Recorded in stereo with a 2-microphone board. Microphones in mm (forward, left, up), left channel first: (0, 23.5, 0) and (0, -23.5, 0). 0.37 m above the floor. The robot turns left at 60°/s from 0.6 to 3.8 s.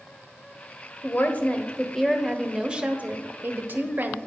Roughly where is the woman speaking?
Left.